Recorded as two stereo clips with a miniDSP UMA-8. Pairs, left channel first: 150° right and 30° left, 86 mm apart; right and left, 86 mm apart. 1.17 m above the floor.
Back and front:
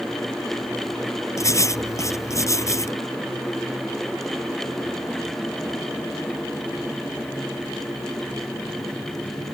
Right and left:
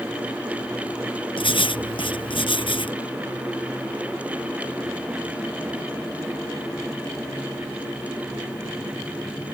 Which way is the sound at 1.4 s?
95° right.